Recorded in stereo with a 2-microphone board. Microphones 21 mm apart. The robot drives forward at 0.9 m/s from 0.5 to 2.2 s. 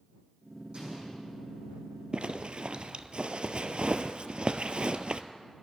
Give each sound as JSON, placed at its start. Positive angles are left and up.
{"t": 0.7, "sound": "an explosion", "side_deg": -65, "distance_m": 6.0}
{"t": 2.1, "sound": "a zipper", "side_deg": -55, "distance_m": 0.5}